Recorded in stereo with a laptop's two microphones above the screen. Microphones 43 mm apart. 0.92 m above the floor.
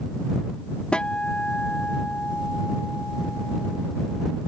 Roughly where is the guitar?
Left.